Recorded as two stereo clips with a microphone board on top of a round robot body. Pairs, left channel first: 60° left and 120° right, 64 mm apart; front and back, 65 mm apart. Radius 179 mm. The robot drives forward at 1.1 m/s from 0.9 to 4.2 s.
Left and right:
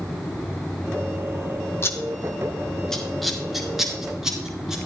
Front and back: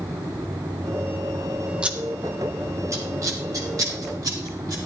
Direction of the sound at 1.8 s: 105° left.